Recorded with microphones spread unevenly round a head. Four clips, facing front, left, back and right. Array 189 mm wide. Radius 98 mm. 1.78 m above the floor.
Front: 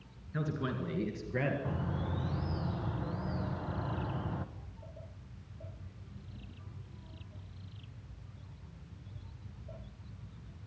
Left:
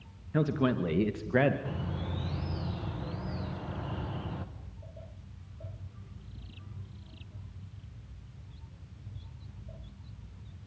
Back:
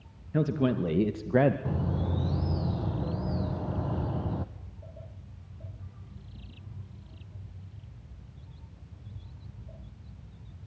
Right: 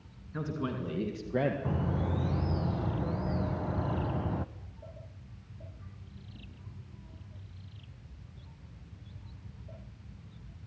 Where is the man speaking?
150° left, 2.5 m; by 1.6 s 175° left, 1.8 m.